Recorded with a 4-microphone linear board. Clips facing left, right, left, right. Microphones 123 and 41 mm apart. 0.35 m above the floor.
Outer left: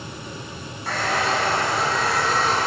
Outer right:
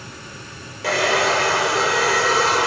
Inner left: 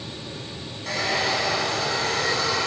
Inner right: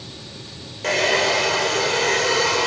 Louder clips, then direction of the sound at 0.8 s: Outer right 5 dB, inner right 6 dB; 85° right.